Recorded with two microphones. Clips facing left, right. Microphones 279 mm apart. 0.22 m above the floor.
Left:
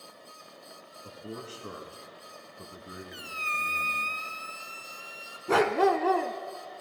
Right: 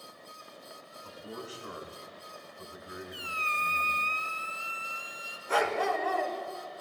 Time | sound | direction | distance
1.0 | a man speaking | 30° left (ahead or behind) | 2 m
3.1 | a squeak | 50° left (ahead or behind) | 0.5 m
5.5 | a dog barking | 75° left (ahead or behind) | 0.7 m